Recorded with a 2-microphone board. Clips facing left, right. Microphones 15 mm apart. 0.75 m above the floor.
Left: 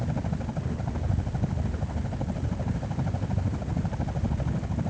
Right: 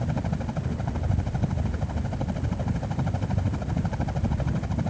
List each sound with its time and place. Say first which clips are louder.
0.0 s a helicopter: right 2 dB; 25° right (ahead or behind); by 4.9 s 30° right (ahead or behind)